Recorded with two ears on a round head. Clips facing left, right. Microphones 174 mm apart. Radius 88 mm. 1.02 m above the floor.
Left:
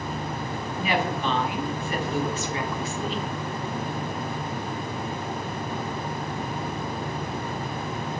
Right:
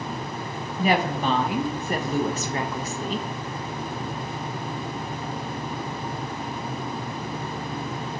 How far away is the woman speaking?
About 0.5 m.